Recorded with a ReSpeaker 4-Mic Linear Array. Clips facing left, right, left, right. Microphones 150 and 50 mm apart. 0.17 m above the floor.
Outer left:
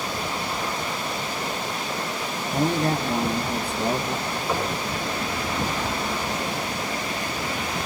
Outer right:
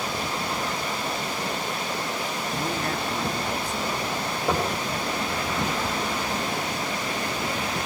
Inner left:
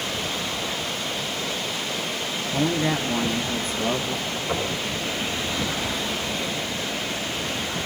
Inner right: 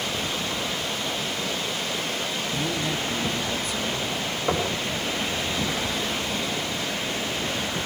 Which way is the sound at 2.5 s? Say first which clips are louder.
Outer left 9 dB, inner left 7 dB; 35° left (ahead or behind).